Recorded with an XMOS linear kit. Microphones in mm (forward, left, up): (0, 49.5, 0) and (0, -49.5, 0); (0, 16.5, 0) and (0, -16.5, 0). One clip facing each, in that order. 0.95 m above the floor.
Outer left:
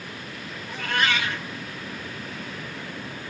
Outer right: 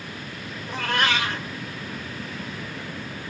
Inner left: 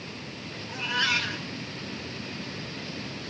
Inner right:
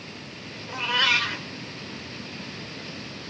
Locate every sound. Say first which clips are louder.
0.7 s a cat meowing: outer right 1 dB, inner right 4 dB; 75° right (ahead or behind), 1.6 m